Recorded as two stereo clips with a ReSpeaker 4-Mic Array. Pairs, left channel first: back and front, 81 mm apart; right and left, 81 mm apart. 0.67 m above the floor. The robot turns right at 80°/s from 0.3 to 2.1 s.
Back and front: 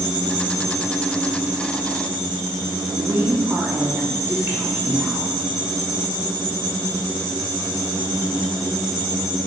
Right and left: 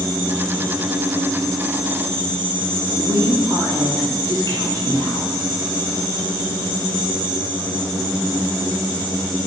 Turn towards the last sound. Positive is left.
turn(degrees=60)